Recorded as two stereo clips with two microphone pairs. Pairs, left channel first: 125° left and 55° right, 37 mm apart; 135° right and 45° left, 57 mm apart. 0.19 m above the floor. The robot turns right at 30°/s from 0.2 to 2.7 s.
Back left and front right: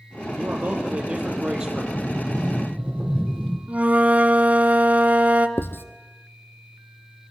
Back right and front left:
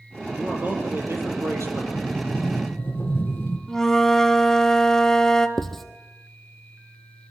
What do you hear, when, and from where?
0.3 s a man speaking: 20° right, 6.5 m; by 1.8 s 25° left, 6.5 m
1.9 s a sliding door: 160° left, 4.5 m; by 3.6 s straight behind, 4.5 m
3.7 s a flute: 55° right, 1.2 m
5.6 s writing: 140° left, 1.3 m